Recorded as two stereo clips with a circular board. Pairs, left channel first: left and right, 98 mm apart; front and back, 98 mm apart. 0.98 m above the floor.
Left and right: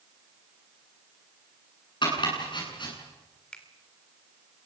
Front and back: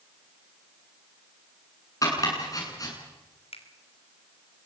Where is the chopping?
55° left, 9 m.